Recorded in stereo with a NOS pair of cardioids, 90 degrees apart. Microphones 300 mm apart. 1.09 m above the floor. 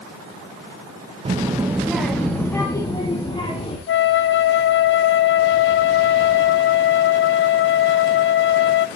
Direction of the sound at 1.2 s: 20° right.